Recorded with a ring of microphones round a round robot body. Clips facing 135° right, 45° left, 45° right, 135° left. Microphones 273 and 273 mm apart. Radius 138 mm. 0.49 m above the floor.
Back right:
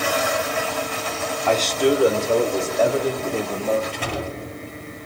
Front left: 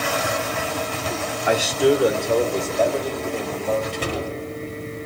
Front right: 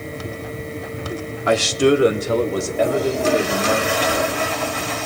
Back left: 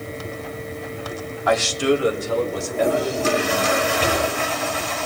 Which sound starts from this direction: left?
A door slam, at 3.9 s.